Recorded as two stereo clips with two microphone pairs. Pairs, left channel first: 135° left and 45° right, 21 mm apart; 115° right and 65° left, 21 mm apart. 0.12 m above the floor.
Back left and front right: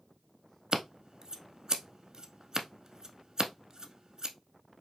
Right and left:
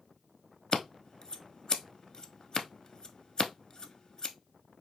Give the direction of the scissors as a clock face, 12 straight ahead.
3 o'clock.